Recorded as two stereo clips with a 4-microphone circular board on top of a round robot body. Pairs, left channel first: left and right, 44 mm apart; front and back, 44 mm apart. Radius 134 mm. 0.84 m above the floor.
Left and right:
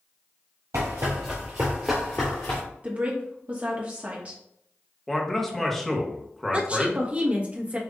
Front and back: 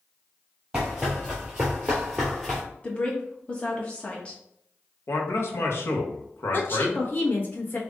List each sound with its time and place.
0.7 s running footsteps: 100° right, 1.2 m; by 2.6 s 90° left, 0.9 m
2.8 s a woman speaking: 50° right, 1.1 m
5.1 s a man speaking: 5° left, 1.2 m
6.5 s a woman speaking: 30° right, 1.4 m